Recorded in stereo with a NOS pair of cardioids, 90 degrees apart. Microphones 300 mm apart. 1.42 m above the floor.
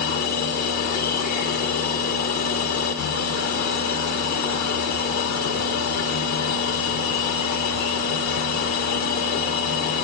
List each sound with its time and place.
0.0 s a machine running: 70° left, 1.3 m